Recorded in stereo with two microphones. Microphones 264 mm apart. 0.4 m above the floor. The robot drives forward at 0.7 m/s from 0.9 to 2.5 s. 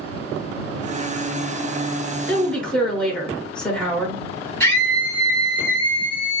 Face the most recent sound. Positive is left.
turn(degrees=10)  # may be behind; listen again after turning